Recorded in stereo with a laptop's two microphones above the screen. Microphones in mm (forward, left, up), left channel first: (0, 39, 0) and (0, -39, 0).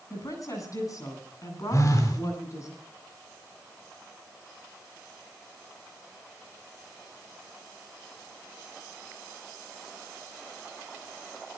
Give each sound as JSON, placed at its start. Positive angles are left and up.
{"t": 0.1, "sound": "a woman speaking", "side_deg": 50, "distance_m": 9.5}
{"t": 1.7, "sound": "a phone buzzing", "side_deg": 50, "distance_m": 4.0}